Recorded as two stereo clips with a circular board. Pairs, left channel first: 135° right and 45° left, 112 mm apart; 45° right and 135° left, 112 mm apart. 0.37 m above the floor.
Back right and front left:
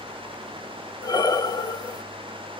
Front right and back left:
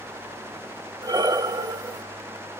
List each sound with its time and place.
1.0 s breathing: straight behind, 0.8 m